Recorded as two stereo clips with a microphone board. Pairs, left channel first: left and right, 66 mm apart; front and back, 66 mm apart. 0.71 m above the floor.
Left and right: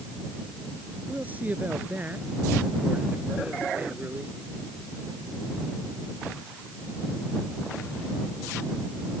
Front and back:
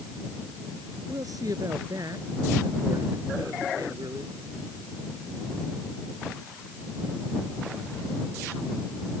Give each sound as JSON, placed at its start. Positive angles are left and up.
{"t": 1.1, "sound": "a man speaking", "azimuth_deg": -155}